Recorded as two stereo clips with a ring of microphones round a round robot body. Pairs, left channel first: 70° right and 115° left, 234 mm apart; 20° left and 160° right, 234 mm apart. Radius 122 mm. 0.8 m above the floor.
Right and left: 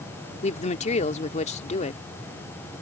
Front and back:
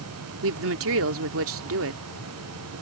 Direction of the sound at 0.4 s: 130° right.